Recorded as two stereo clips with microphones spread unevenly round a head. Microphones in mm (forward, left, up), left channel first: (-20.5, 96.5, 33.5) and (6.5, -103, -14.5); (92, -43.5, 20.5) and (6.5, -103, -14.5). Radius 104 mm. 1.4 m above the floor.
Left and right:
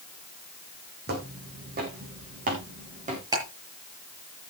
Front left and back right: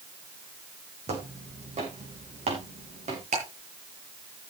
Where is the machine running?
I don't hear a machine running.